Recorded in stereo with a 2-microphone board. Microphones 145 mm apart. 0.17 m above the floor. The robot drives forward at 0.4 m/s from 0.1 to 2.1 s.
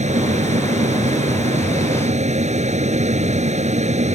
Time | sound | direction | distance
0.0 | an aircraft | 50° right (ahead or behind) | ?